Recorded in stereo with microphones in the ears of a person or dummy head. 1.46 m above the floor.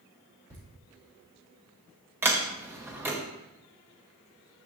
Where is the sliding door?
10° right (ahead or behind), 0.9 m.